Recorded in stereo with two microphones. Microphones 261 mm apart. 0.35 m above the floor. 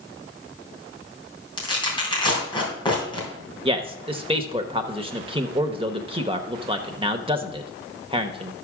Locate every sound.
1.6 s tearing paper: 15° left (ahead or behind), 3.5 m
3.6 s a man speaking: 20° right (ahead or behind), 0.8 m